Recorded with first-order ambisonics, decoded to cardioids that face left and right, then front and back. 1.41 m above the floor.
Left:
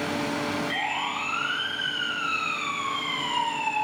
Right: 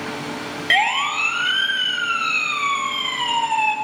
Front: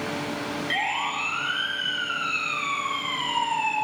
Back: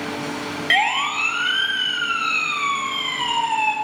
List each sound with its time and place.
0.7 s a siren: 125° right, 2.5 m; by 3.8 s 120° right, 4.5 m